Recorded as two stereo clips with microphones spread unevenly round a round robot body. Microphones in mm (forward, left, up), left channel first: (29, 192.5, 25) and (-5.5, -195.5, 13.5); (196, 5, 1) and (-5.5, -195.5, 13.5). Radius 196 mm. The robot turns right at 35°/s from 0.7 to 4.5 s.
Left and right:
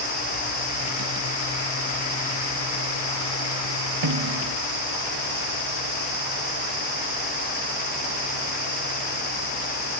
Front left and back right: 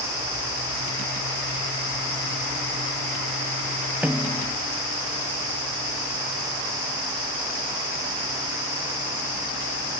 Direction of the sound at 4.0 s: 50° right.